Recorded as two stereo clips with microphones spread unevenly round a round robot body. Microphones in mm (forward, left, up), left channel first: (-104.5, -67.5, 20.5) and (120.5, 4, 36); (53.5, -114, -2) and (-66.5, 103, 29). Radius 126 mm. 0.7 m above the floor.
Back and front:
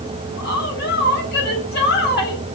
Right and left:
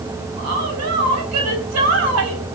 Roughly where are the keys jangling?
No keys jangling in this recording.